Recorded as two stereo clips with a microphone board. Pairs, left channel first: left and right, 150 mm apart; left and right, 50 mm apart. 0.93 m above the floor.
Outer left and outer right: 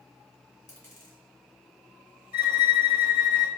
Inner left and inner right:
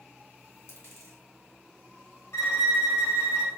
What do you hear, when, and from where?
0.7 s a dropped coin: 55° left (ahead or behind), 2.5 m
2.3 s a violin: 80° left, 1.3 m